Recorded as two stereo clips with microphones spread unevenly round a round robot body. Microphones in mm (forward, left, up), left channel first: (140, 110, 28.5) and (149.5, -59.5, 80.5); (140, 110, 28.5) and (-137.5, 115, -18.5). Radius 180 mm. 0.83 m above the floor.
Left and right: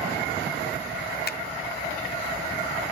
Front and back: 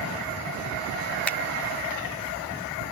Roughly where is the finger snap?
Left.